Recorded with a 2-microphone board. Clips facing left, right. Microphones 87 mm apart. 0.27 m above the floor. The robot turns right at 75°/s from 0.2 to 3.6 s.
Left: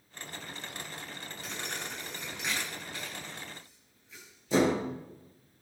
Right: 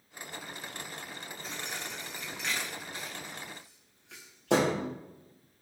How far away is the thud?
About 8.5 m.